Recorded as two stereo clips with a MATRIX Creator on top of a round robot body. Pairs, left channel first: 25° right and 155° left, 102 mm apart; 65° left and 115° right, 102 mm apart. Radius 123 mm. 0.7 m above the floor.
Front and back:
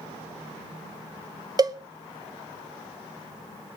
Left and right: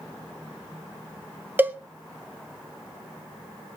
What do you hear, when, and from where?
1.6 s a cowbell: 175° right, 1.3 m